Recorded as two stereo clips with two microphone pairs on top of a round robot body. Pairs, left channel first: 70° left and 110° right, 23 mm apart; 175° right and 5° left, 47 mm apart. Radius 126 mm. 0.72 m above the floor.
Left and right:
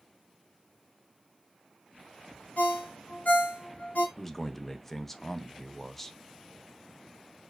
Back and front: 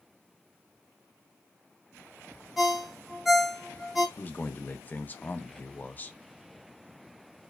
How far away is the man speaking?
About 0.6 m.